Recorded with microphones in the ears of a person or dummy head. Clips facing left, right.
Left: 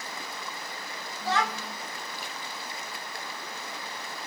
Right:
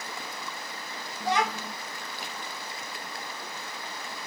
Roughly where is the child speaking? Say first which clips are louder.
Right 2 dB; right.